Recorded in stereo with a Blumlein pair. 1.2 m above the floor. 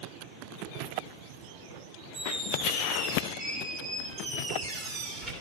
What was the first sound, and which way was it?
A squeak, 10° right.